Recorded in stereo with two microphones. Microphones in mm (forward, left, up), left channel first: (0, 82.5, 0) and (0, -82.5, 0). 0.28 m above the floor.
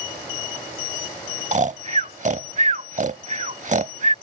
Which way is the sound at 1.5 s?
50° right (ahead or behind).